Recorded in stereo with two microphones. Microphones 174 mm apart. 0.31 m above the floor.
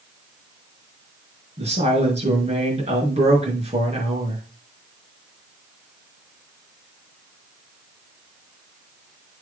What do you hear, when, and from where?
1.6 s a woman speaking: 35° right (ahead or behind), 5.5 m